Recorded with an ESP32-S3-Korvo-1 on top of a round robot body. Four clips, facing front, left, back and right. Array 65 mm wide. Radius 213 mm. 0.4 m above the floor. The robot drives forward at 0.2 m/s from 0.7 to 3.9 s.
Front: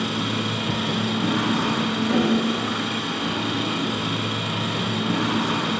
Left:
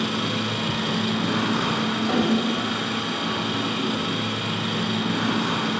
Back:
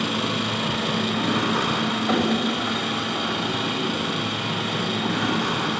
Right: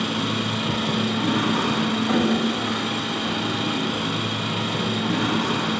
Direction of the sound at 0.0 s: 160° left.